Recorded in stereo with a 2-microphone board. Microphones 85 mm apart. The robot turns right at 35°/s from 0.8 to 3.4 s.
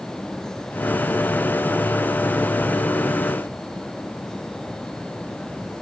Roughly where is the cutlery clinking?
No cutlery clinking in this recording.